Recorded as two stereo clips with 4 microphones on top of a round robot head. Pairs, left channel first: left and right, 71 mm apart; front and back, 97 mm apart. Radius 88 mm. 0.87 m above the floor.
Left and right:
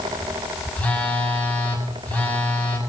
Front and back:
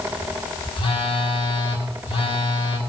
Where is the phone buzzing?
20° left, 6 m.